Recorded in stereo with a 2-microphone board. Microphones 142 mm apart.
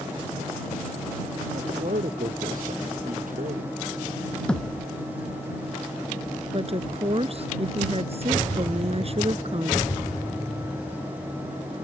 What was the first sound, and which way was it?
A man speaking, 70° right (ahead or behind).